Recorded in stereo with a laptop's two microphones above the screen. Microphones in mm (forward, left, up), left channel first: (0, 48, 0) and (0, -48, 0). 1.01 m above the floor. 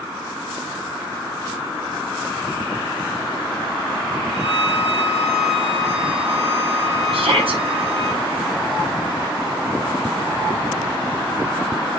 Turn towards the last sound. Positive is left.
turn(degrees=-70)  # may be behind; listen again after turning